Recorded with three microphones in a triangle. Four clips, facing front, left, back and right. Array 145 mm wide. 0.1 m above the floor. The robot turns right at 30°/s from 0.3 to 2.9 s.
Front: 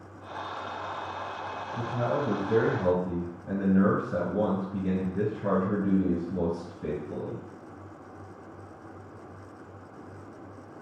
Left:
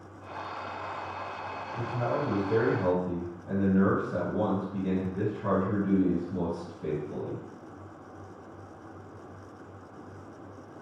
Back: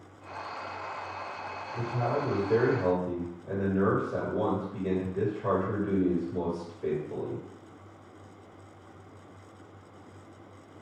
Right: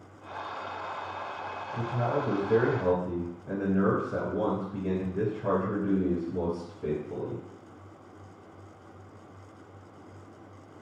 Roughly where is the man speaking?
Ahead right.